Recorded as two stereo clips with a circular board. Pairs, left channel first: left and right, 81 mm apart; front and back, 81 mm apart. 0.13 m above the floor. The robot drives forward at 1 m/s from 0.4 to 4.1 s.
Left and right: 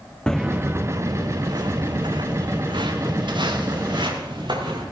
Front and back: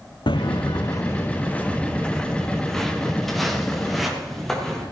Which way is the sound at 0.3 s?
10° left.